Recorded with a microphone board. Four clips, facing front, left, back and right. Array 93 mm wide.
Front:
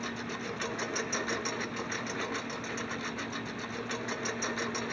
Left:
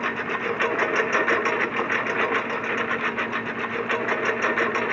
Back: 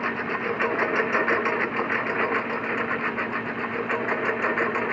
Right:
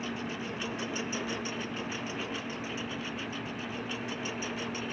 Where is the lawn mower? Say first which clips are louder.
Left 10 dB, back 10 dB; 130° left; by 4.9 s 125° left.